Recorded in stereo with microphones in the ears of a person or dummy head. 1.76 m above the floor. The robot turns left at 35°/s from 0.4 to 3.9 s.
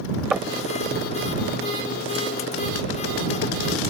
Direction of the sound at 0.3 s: 5° right (ahead or behind).